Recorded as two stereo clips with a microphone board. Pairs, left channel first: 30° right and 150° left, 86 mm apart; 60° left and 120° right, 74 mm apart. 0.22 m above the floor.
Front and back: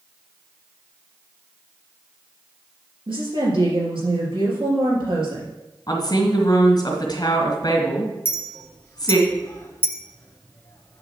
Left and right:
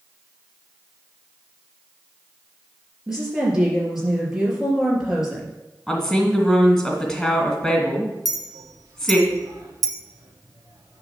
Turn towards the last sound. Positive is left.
turn(degrees=-90)